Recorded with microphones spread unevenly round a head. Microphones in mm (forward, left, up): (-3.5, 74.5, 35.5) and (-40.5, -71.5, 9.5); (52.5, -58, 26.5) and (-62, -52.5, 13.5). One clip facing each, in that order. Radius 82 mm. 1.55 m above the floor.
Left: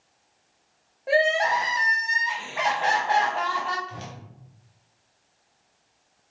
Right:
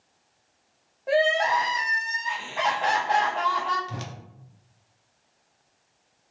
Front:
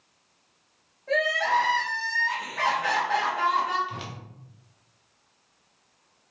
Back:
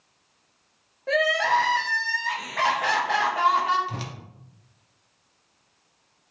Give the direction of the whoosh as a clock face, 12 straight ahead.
4 o'clock.